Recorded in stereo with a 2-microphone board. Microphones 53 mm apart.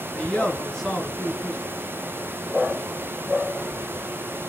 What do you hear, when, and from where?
0.1 s a man speaking: 20° left (ahead or behind), 3 m